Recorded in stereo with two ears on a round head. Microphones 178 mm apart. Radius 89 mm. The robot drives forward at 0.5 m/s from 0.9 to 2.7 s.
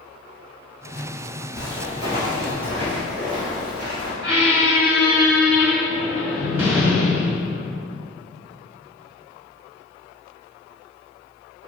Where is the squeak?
15° right (ahead or behind), 1.9 m.